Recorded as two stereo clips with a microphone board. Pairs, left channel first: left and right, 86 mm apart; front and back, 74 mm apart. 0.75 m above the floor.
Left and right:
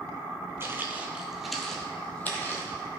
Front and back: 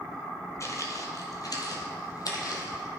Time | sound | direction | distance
0.6 | footsteps | 35° right | 1.2 m